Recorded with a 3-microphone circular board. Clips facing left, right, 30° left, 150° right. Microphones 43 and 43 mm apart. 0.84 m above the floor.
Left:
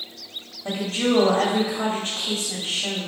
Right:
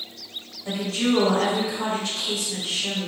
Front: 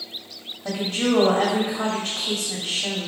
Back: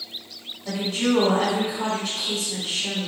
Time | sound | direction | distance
0.7 | a woman speaking | 65° left | 1.9 m